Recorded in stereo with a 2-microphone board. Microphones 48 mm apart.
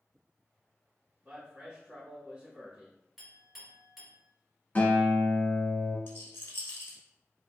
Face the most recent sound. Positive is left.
turn(degrees=55)  # may be behind; listen again after turning